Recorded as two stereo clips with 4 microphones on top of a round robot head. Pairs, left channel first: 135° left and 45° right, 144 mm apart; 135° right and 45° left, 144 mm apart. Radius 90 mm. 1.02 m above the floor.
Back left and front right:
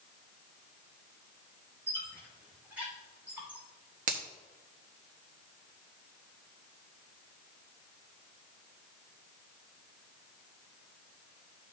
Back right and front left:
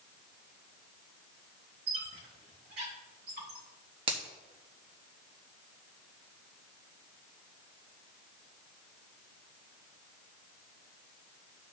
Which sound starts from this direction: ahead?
A finger snap, at 4.1 s.